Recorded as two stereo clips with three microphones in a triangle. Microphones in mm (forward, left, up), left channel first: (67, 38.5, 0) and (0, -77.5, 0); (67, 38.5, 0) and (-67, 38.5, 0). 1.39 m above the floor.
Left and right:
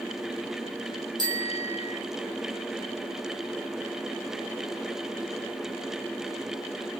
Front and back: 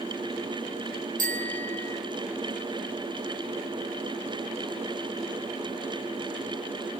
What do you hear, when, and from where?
1.2 s a bicycle bell: straight behind, 4.5 m